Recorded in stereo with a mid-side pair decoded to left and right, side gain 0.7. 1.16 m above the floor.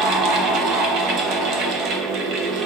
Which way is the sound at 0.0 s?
55° right.